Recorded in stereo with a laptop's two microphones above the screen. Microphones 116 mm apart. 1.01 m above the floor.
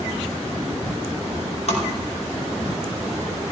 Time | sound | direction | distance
1.7 | tapping | 60° left (ahead or behind) | 5 m